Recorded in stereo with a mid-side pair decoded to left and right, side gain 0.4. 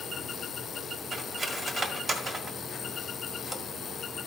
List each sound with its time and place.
1.1 s cutlery clinking: 50° right, 1.5 m